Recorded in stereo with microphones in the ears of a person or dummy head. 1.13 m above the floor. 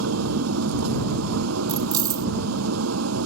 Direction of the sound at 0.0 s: 90° right.